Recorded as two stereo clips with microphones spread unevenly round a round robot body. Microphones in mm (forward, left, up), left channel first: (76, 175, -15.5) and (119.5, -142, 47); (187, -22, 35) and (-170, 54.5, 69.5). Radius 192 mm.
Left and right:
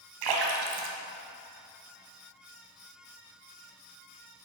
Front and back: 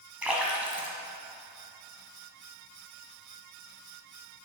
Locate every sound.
0.2 s a splash: 105° right, 1.6 m